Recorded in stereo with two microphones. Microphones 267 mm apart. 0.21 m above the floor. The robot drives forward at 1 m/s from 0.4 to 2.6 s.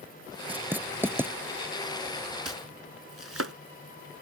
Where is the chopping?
65° right (ahead or behind); by 3.5 s 60° right (ahead or behind).